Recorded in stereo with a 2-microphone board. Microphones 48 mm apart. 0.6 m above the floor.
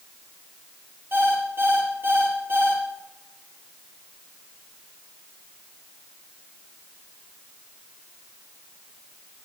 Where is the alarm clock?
45° right (ahead or behind), 5 m.